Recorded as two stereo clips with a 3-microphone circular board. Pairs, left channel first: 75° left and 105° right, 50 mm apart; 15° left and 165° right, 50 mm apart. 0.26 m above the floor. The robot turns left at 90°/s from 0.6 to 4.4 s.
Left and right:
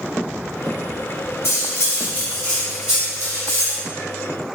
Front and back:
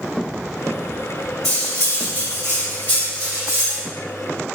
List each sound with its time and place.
1.4 s cutlery clinking: 95° left, 1.2 m; by 3.8 s 115° right, 1.2 m